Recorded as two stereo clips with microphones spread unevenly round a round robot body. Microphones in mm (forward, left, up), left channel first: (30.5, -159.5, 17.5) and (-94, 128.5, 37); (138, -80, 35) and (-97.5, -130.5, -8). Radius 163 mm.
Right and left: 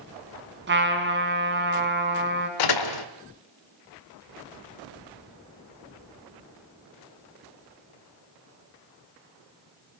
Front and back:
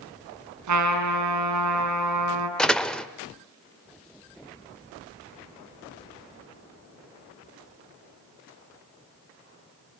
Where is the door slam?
75° right, 1.5 m.